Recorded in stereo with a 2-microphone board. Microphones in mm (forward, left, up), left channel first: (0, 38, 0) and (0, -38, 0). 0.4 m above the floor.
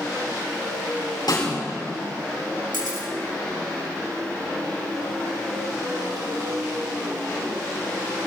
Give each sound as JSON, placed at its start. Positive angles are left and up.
{"t": 1.3, "sound": "a snare drum", "side_deg": 75, "distance_m": 6.0}
{"t": 2.7, "sound": "a camera shutter", "side_deg": -75, "distance_m": 4.0}